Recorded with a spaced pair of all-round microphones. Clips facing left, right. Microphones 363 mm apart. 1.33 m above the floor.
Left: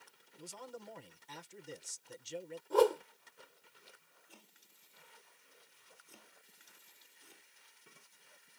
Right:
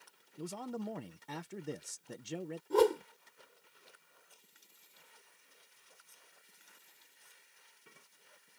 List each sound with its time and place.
0.4 s a man speaking: 70° right (ahead or behind)
2.7 s a whoosh: 35° right (ahead or behind)
4.3 s chopping: 75° left (ahead or behind)